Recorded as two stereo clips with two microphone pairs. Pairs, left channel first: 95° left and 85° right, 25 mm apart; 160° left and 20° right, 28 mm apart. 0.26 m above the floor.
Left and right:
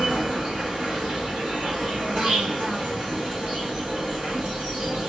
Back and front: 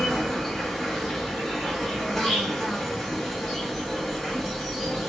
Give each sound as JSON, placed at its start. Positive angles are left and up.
{"t": 0.0, "sound": "an insect", "azimuth_deg": -125, "distance_m": 1.2}